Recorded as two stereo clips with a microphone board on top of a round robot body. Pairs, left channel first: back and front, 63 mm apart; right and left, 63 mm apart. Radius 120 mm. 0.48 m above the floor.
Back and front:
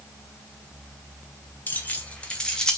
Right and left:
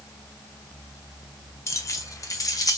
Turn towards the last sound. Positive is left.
turn(degrees=-100)